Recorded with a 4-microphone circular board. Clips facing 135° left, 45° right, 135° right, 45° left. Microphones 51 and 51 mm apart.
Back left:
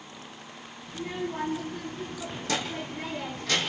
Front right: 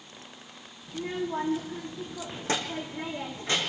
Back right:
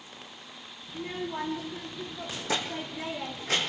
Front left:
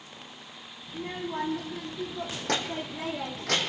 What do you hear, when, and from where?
0.9 s a child speaking: straight ahead, 7 m; by 3.7 s 25° left, 6 m